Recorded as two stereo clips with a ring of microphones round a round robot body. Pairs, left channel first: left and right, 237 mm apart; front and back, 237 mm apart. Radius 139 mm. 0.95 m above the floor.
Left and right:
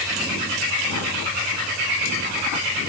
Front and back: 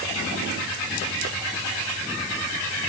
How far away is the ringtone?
I don't hear a ringtone.